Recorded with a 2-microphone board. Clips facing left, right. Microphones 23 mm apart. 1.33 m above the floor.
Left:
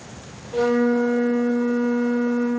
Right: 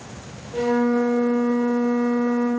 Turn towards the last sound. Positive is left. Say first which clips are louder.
# left 1 dB
turn(degrees=65)  # may be behind; listen again after turning